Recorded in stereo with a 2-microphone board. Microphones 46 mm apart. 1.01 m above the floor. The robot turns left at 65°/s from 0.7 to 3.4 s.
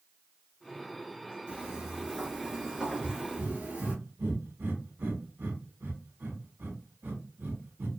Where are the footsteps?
25° right (ahead or behind), 1.1 m; by 4.0 s 35° right (ahead or behind), 1.3 m.